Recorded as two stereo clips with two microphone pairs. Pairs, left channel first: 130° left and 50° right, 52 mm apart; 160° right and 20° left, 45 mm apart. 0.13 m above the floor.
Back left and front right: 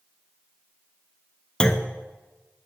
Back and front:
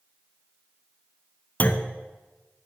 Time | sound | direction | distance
1.6 | a clunk | 170° right | 1.1 m